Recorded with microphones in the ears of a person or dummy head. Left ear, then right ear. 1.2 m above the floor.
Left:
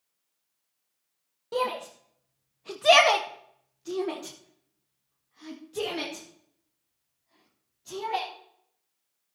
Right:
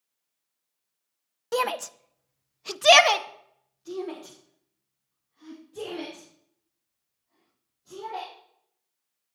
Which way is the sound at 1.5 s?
55° right (ahead or behind).